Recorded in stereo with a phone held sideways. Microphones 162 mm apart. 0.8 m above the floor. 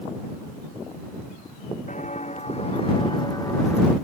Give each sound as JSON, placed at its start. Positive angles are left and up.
{"t": 1.9, "sound": "footsteps", "side_deg": 50}